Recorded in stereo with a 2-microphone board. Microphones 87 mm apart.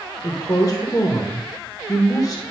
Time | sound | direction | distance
0.2 | a woman speaking | 45° left (ahead or behind) | 1.5 m